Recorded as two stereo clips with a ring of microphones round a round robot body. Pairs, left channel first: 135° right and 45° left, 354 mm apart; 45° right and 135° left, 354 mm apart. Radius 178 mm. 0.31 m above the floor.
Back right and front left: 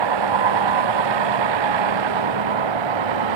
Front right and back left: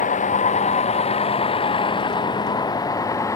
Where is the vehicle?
25° left; by 3.4 s 35° left.